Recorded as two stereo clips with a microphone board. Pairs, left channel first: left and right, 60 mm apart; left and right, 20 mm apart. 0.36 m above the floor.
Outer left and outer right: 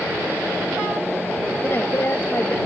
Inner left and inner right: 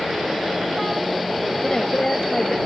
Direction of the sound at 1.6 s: 40° left (ahead or behind).